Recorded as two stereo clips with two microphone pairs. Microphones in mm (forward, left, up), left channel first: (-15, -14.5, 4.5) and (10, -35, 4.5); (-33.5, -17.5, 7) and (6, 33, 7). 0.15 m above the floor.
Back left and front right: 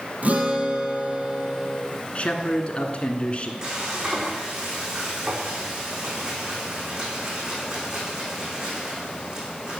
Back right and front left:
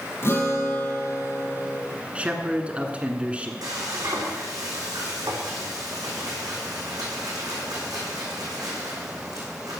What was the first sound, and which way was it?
A guitar, 80° right.